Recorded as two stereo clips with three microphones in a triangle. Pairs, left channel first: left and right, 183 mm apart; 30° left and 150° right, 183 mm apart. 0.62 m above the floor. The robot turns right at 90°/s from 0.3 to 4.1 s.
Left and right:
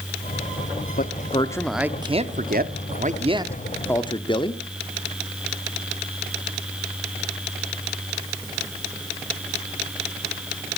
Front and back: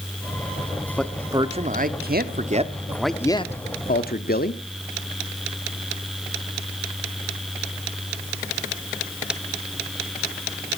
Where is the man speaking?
110° left, 0.9 m; by 4.6 s 35° left, 0.9 m.